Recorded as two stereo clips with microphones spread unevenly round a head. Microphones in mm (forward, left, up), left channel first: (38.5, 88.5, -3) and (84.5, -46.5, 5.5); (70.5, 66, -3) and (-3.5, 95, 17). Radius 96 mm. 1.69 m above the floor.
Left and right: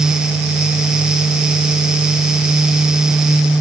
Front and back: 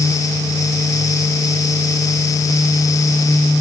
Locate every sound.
Only background noise.